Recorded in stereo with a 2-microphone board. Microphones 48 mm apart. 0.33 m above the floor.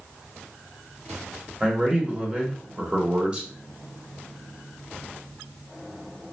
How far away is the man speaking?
About 0.9 m.